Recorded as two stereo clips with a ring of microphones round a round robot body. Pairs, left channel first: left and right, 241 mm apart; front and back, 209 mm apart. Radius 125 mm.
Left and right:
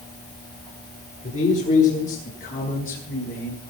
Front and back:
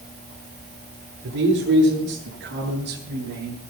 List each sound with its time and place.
1.2 s a man speaking: 150° left, 9 m; by 3.6 s 145° left, 8 m